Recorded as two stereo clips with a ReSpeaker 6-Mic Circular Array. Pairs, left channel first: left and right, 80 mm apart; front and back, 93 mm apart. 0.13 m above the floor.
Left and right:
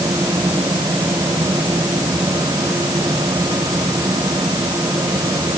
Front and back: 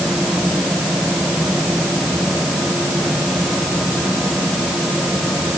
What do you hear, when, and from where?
Only background noise.